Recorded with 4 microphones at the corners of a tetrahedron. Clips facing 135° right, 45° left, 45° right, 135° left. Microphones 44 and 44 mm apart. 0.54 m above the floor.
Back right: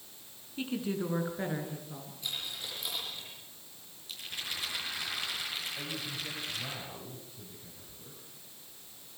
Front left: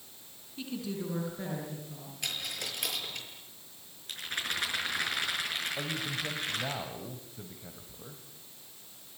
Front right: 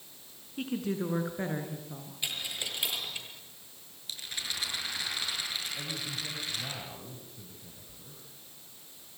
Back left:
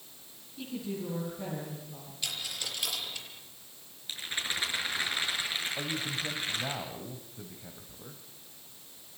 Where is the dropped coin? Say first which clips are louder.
Front left 3 dB, front right 1 dB; 25° left, 6 m.